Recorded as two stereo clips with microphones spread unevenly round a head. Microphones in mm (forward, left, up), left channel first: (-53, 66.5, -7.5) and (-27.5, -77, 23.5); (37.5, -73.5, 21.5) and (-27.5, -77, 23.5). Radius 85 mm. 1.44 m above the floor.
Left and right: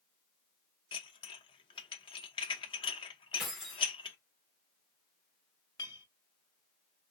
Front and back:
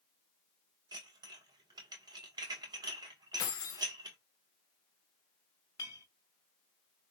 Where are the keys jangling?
Straight ahead, 0.8 m.